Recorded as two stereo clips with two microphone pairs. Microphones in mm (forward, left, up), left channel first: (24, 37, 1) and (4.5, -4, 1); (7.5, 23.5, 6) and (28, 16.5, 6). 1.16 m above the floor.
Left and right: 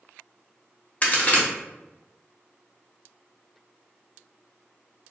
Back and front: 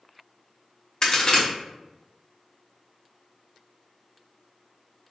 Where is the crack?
110° left, 1.0 m.